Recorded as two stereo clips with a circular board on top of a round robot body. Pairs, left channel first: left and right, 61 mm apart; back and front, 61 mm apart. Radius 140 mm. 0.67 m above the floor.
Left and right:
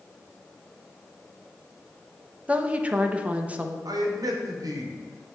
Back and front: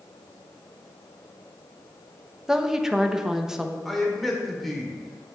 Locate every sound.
2.5 s a woman speaking: 65° right, 1.1 m
3.9 s a man speaking: 90° right, 2 m